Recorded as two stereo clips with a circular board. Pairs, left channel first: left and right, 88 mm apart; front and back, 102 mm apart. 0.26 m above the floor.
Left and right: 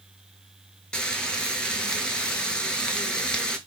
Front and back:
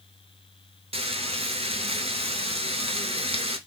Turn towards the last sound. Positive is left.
turn(degrees=170)